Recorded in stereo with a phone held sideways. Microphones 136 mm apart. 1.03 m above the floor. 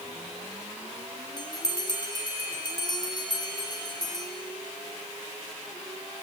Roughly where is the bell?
Left.